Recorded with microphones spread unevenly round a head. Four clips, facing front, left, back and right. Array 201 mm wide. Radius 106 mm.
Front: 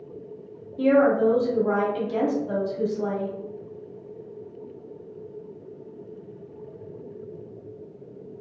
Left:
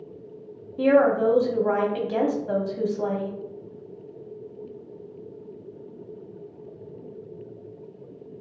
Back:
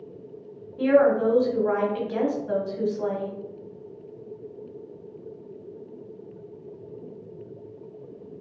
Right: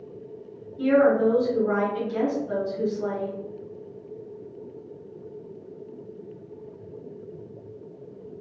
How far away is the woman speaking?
About 1.0 m.